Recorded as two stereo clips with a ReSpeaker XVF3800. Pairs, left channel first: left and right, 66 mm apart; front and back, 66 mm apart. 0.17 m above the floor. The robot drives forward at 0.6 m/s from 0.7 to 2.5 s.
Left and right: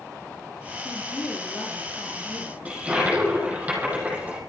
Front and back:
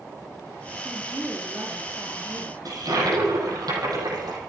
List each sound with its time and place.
0.8 s a woman speaking: 125° left, 3 m; by 2.5 s 140° left, 3.5 m
2.6 s a toilet flushing: 160° right, 6.5 m